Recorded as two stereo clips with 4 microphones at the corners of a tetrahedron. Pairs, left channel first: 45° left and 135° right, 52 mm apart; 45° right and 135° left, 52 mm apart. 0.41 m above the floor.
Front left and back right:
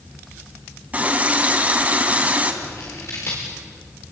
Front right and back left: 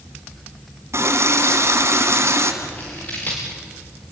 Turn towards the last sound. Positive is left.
turn(degrees=10)